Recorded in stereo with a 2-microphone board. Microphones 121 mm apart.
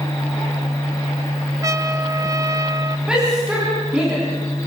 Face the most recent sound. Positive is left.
turn(degrees=-10)  # may be behind; listen again after turning